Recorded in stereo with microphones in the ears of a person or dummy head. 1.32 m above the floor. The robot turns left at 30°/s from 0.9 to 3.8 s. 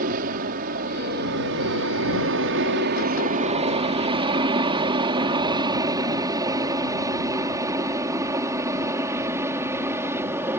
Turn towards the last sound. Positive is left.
turn(degrees=-15)  # may be behind; listen again after turning